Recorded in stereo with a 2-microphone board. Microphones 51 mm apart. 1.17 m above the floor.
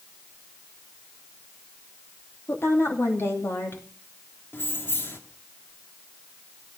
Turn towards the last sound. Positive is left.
turn(degrees=45)  # may be behind; listen again after turning